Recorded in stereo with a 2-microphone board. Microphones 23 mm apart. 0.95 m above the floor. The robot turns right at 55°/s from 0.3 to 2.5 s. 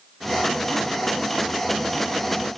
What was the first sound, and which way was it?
Only background noise.